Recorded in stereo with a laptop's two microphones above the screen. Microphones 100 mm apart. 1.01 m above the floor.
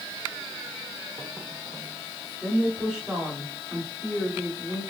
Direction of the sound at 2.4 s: 10° right (ahead or behind).